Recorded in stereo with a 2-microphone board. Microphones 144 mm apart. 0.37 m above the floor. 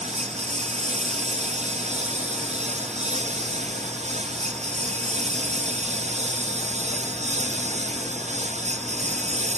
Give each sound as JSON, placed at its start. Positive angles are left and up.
{"t": 0.0, "sound": "a lawn mower", "side_deg": -50}